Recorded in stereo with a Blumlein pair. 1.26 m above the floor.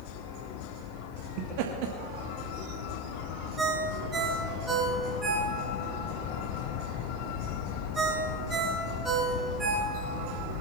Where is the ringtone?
15° right, 5 m.